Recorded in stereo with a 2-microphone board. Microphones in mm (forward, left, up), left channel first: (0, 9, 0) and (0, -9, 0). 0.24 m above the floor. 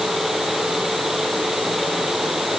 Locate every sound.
Only background noise.